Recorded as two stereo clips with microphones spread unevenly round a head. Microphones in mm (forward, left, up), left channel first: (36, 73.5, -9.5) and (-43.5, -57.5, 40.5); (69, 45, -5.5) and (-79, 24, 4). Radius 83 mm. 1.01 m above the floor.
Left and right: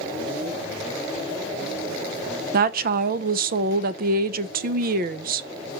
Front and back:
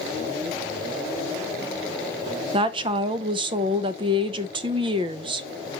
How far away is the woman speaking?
About 0.7 m.